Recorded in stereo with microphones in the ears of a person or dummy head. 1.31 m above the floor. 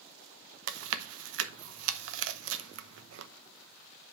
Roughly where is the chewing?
Right.